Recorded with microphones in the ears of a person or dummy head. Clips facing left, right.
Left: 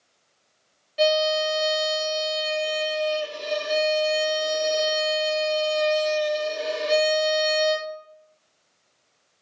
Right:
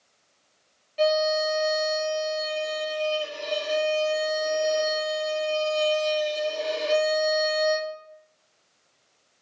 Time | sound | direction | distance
1.0 | a violin | 10° left (ahead or behind) | 0.6 m